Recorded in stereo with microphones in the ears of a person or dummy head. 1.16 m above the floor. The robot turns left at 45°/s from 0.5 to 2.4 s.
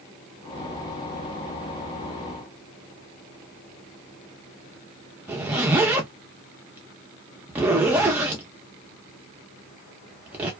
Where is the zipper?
10° right (ahead or behind), 0.6 m.